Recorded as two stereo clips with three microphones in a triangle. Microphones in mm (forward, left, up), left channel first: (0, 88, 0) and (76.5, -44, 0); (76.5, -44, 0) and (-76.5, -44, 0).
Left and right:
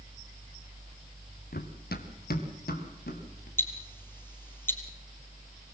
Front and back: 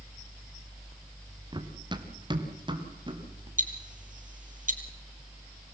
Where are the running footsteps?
120° left, 2.5 m.